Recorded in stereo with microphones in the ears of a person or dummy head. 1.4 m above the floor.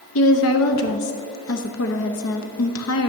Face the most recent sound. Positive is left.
turn(degrees=70)  # may be behind; listen again after turning